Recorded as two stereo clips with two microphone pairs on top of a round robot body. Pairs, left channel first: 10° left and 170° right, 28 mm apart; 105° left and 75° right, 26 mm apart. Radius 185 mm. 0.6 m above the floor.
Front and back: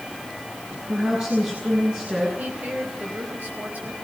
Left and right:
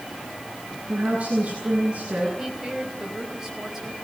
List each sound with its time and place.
0.9 s a woman speaking: 120° right, 9.5 m
2.4 s a woman speaking: 150° right, 5 m